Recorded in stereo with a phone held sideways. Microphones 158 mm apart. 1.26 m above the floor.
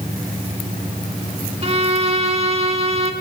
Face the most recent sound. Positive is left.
turn(degrees=-40)  # may be behind; listen again after turning